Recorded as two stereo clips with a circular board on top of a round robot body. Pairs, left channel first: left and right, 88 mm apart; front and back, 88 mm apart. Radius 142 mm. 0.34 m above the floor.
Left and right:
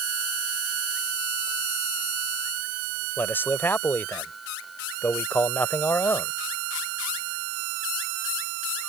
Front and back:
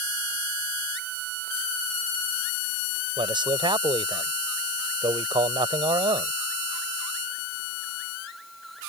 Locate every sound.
3.2 s a man speaking: 155° left